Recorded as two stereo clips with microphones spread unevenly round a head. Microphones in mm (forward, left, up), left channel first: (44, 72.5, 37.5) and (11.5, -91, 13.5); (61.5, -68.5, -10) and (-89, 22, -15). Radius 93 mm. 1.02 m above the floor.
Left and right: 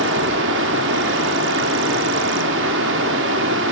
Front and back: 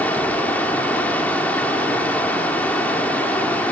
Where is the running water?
115° right, 1.8 m.